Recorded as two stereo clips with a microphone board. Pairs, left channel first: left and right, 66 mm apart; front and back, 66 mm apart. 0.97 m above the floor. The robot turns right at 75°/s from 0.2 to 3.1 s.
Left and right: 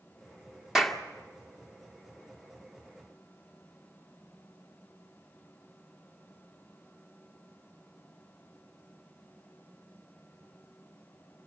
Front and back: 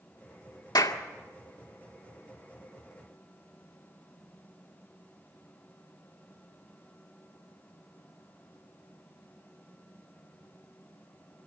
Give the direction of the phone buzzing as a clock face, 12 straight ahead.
No phone buzzing in this recording.